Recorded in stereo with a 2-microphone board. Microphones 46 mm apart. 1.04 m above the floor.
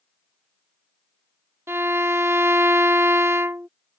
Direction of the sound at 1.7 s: 80° right.